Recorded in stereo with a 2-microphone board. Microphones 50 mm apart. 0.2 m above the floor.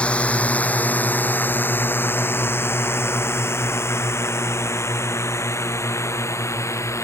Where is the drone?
25° left (ahead or behind); by 7.0 s 75° left (ahead or behind).